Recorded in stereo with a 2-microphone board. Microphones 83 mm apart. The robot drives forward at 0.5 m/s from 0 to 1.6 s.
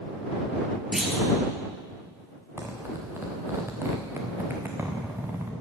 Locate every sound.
0.9 s a clunk: 5° right (ahead or behind), 2.5 m
2.6 s a zipper: 35° right (ahead or behind), 2.5 m